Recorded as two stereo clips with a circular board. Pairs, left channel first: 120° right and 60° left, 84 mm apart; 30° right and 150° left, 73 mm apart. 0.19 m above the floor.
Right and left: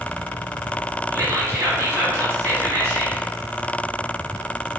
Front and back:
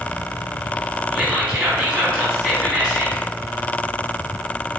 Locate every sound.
1.1 s whispering: 80° left, 1.3 m